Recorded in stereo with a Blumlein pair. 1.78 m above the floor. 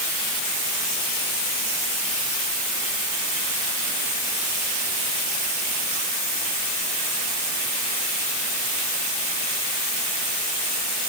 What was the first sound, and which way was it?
Only background noise.